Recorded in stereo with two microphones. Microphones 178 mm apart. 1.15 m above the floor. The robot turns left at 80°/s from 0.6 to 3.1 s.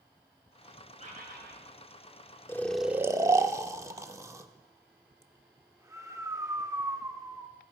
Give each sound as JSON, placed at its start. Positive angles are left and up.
{"t": 1.0, "sound": "a bird", "azimuth_deg": -40, "distance_m": 3.5}
{"t": 2.5, "sound": "snoring", "side_deg": 15, "distance_m": 0.9}